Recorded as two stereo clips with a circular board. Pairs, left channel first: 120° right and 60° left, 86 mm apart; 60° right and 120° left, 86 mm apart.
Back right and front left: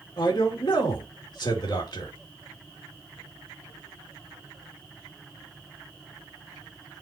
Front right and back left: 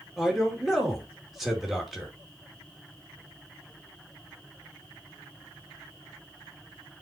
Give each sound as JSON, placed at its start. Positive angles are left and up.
{"t": 0.2, "sound": "a man speaking", "azimuth_deg": -150, "distance_m": 3.0}